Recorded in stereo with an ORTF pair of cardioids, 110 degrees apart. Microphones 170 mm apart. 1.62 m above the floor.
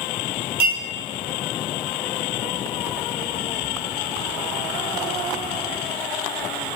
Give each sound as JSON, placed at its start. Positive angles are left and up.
{"t": 0.6, "sound": "a clink", "azimuth_deg": -65, "distance_m": 1.7}